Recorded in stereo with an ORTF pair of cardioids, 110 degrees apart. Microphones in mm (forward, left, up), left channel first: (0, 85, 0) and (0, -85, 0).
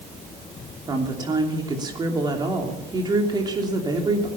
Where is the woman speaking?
25° right, 3 m.